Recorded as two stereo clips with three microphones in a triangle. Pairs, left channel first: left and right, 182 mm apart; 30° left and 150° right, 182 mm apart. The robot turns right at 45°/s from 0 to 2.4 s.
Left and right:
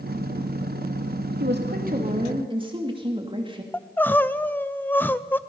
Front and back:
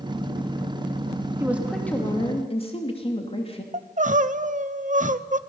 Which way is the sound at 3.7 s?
170° left.